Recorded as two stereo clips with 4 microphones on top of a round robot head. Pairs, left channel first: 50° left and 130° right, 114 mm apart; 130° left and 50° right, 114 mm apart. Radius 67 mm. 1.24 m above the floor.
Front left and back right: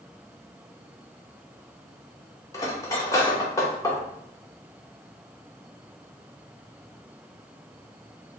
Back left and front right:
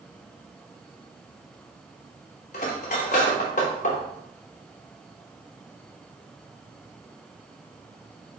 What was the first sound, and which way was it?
Cutlery clinking, 110° left.